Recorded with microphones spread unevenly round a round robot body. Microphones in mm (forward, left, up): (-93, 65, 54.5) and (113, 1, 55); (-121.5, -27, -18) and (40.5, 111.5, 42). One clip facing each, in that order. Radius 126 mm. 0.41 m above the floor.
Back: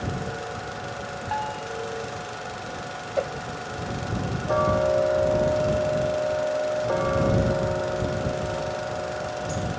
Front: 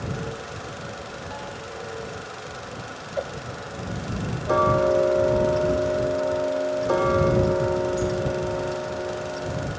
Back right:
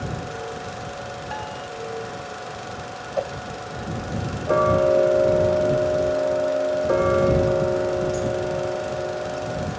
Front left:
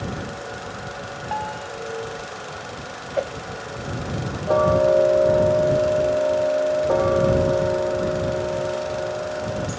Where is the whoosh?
115° left.